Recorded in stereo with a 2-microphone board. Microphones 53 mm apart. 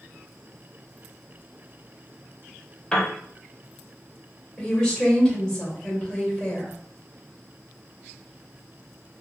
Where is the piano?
15° left (ahead or behind), 0.9 m.